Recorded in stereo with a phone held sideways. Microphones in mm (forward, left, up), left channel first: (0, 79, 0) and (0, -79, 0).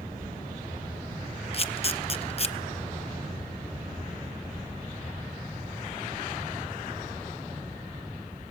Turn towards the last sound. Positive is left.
turn(degrees=40)  # may be behind; listen again after turning